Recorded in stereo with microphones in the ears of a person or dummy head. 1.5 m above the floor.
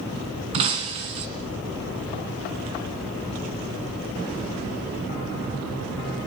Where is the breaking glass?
35° right (ahead or behind), 2 m.